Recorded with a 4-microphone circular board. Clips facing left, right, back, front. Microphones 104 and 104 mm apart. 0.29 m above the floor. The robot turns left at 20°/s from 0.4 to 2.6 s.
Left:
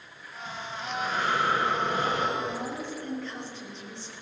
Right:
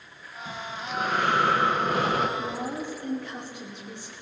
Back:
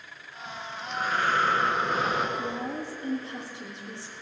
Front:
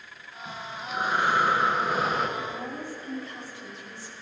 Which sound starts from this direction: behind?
A woman speaking, at 2.4 s.